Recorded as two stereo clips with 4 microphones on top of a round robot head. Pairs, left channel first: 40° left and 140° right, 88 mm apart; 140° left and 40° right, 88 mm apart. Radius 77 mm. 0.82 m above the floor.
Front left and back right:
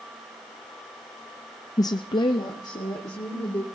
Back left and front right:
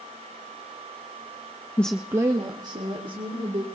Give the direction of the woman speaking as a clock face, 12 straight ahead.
10 o'clock.